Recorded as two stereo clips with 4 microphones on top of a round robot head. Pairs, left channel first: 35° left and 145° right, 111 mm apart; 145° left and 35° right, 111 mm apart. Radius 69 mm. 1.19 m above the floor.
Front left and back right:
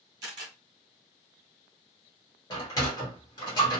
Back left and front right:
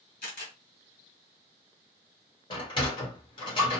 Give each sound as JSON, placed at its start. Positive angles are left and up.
{"t": 0.2, "sound": "a camera shutter", "azimuth_deg": 160, "distance_m": 1.8}
{"t": 2.5, "sound": "a sliding door", "azimuth_deg": 95, "distance_m": 1.2}